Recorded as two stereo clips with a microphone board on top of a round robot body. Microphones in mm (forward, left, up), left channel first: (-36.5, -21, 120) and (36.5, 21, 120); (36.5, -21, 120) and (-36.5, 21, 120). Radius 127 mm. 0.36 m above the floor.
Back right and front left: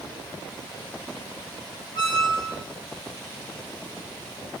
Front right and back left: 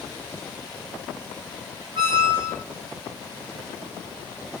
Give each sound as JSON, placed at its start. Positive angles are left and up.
{"t": 1.9, "sound": "a squeak", "azimuth_deg": -175, "distance_m": 1.3}